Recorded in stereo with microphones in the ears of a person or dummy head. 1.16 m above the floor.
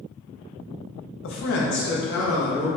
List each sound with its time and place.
1.2 s a man speaking: 70° left (ahead or behind), 0.7 m; by 2.7 s 55° left (ahead or behind), 1.4 m